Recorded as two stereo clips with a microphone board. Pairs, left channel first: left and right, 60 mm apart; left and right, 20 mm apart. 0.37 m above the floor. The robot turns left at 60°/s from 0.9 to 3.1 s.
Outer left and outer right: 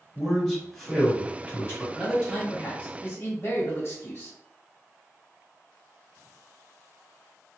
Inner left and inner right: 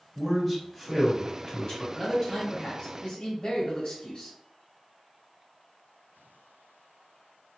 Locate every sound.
0.1 s a man speaking: 170° left, 1.8 m; by 1.8 s 115° left, 1.8 m
1.9 s a man speaking: 170° left, 1.2 m; by 4.3 s 100° left, 1.2 m